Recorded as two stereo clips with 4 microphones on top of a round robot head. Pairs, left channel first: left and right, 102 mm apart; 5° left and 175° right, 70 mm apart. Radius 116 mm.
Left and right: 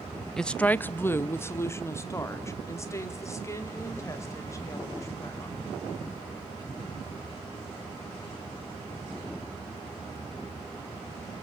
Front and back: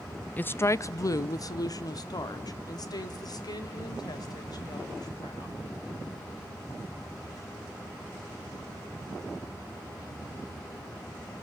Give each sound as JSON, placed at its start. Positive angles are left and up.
{"t": 0.4, "sound": "a woman speaking", "azimuth_deg": 15, "distance_m": 0.7}